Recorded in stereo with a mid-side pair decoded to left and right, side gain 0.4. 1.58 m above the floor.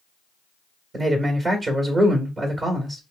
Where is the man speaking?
50° right, 1.6 m.